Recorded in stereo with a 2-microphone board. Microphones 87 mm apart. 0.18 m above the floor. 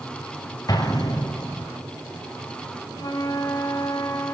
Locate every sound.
0.7 s an explosion: 50° left (ahead or behind), 2.5 m
3.0 s a flute: 45° left (ahead or behind), 1.6 m